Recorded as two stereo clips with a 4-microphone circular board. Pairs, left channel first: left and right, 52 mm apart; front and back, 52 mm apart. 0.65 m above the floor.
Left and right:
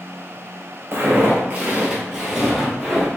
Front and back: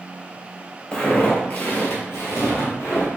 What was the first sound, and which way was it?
Footsteps, 65° right.